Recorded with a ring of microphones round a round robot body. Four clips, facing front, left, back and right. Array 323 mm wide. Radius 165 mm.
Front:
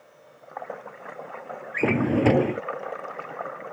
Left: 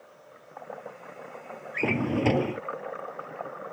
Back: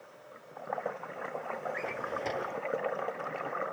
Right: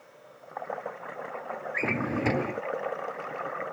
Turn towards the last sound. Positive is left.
turn(degrees=10)